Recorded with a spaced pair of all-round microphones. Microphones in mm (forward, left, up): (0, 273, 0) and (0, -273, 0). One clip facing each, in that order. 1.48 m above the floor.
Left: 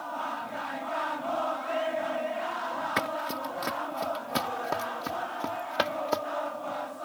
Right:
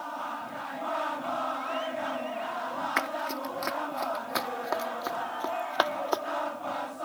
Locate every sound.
3.0 s running footsteps: 55° left (ahead or behind); by 6.2 s 45° left (ahead or behind)